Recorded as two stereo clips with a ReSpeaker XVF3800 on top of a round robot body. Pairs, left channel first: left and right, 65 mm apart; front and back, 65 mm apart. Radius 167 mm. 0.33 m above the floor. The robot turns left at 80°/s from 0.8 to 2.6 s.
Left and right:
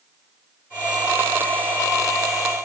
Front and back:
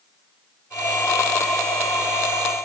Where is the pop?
I don't hear a pop.